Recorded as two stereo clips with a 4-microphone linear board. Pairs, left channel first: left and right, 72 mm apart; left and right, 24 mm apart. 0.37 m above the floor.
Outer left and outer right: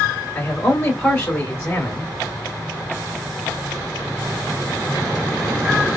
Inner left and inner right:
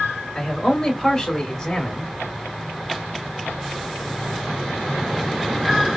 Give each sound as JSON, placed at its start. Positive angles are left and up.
{"t": 0.3, "sound": "a man speaking", "side_deg": 20, "distance_m": 1.3}